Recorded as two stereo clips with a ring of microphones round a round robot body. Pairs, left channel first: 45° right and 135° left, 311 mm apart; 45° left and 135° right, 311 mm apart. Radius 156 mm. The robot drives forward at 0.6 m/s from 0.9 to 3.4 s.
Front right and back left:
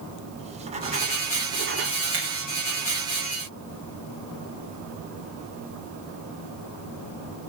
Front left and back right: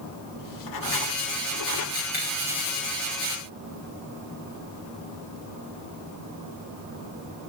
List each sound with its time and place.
0.4 s writing: 65° left, 1.9 m; by 1.9 s 85° left, 1.7 m
2.1 s breaking glass: 85° left, 10 m